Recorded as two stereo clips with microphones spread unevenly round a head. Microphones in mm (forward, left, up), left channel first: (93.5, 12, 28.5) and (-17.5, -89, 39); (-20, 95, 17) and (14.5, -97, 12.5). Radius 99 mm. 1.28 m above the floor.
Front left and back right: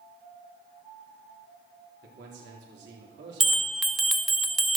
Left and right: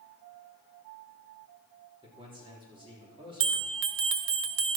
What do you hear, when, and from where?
2.0 s a man speaking: 145° right, 4 m
3.4 s a bell: 50° right, 1.1 m